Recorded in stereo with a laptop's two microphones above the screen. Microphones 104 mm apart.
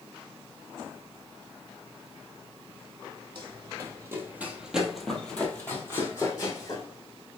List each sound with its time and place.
3.4 s running footsteps: 40° right (ahead or behind), 1.4 m; by 6.8 s 35° left (ahead or behind), 1.9 m